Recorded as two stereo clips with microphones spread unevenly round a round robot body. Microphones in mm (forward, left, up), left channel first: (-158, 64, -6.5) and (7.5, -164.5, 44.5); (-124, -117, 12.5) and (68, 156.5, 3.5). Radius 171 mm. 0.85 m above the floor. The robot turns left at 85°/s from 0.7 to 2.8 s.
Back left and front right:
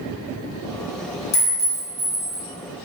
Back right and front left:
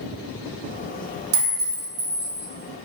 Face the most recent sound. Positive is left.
turn(degrees=-55)